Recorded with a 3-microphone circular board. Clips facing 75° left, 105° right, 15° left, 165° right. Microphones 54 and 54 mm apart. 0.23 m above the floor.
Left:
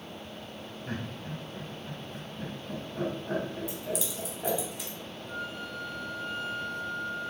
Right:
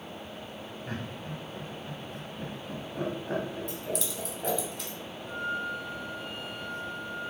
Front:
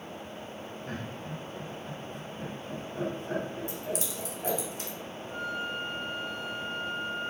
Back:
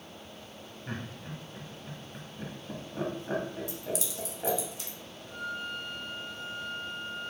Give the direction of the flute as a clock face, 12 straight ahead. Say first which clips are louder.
Right 6 dB, front 2 dB; 2 o'clock.